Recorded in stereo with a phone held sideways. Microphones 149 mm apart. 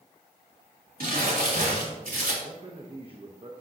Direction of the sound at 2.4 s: 40° right (ahead or behind).